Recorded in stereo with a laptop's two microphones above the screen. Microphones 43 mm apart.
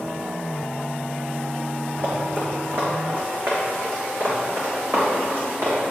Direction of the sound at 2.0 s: 50° right (ahead or behind).